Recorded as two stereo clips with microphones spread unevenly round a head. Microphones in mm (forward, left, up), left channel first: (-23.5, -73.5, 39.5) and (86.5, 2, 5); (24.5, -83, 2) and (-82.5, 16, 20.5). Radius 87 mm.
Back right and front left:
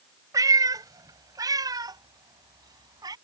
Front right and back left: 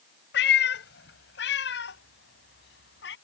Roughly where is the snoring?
No snoring in this recording.